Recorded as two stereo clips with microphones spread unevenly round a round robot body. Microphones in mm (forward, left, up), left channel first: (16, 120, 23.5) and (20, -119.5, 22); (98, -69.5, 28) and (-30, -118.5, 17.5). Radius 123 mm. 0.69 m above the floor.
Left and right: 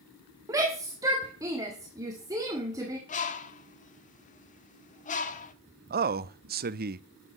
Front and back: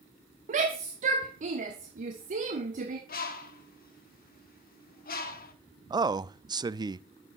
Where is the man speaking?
120° right, 0.6 m.